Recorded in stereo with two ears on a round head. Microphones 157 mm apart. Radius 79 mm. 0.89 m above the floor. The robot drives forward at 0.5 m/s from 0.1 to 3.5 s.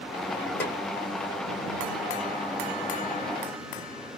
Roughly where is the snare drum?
Centre.